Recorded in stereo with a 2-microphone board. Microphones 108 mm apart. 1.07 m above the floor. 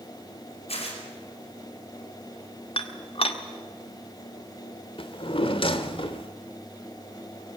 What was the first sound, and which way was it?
Tearing paper, 70° left (ahead or behind).